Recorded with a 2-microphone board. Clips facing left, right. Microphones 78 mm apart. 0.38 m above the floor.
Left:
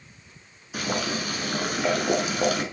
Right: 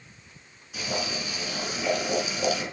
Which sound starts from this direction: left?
Boiling, at 0.7 s.